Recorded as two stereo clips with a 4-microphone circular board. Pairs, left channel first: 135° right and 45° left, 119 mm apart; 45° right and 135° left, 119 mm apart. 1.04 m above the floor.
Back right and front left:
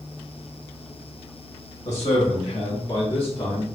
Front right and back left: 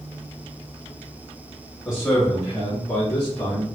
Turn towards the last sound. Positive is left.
turn(degrees=-100)